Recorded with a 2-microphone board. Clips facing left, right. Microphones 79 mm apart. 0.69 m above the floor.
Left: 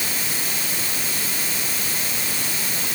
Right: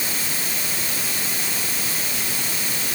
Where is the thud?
No thud in this recording.